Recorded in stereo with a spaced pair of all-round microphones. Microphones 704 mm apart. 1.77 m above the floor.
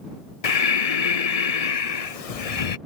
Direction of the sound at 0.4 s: 55° left (ahead or behind).